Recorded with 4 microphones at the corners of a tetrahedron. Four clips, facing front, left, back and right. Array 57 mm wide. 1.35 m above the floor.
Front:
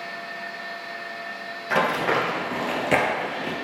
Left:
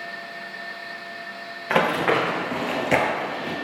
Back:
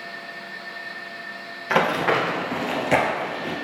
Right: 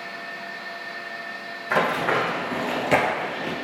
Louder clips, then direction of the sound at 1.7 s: Left 1 dB, back 2 dB; 100° left.